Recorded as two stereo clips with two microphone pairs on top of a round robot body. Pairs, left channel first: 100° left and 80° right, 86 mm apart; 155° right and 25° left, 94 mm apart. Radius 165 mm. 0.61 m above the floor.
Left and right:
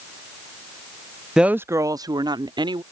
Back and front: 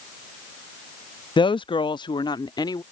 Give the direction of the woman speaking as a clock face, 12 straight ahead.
6 o'clock.